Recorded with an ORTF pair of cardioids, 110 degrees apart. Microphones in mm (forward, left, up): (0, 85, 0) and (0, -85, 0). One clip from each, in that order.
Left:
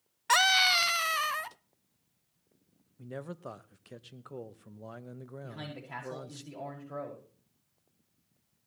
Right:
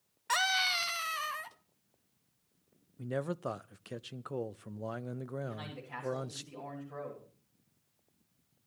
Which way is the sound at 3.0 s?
25° right.